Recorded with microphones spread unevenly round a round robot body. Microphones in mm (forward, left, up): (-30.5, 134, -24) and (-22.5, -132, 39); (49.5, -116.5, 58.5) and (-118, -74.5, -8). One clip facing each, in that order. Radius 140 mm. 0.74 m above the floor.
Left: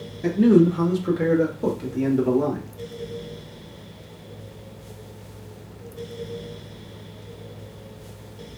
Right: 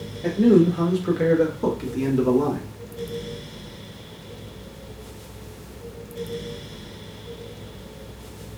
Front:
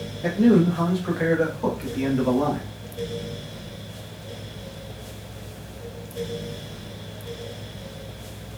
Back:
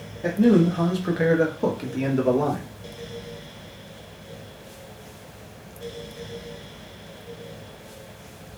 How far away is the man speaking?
About 0.6 m.